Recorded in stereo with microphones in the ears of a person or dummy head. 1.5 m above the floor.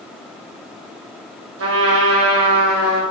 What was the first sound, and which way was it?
A trumpet, 55° right (ahead or behind).